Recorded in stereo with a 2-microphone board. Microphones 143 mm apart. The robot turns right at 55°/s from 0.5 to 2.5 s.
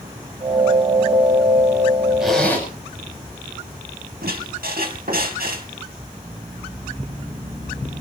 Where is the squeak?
80° right, 2.5 m.